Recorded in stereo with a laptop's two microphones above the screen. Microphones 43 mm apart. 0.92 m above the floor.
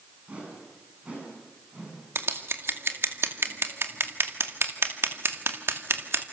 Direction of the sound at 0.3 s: 30° right (ahead or behind).